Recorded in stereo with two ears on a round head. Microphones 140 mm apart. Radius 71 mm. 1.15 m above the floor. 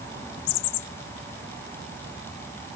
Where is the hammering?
I don't hear hammering.